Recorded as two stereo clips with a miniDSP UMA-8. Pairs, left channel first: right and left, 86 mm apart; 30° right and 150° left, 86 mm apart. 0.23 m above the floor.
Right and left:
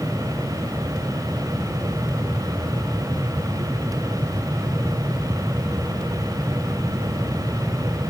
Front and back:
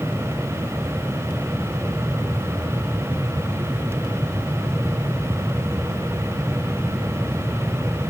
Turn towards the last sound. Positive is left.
No sound to turn to.